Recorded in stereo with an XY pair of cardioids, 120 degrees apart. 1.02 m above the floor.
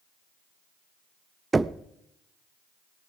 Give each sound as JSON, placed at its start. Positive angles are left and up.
{"t": 1.5, "sound": "knocking", "azimuth_deg": -20, "distance_m": 0.6}